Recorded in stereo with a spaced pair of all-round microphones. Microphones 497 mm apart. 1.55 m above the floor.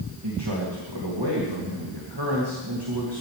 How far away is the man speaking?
About 3 m.